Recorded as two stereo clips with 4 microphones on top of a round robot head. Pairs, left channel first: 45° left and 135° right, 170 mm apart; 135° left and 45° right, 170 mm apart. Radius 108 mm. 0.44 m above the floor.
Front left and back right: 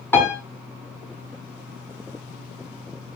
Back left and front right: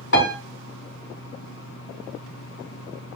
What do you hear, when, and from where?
0.1 s a piano: 120° left, 4.5 m